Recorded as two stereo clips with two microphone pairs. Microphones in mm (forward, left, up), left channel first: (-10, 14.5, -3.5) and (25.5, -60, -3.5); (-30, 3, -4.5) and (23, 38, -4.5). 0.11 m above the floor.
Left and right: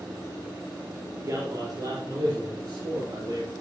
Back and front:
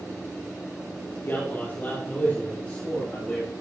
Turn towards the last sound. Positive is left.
turn(degrees=-80)